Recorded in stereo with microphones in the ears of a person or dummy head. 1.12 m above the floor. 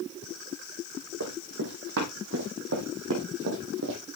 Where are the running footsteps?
60° right (ahead or behind), 4 m.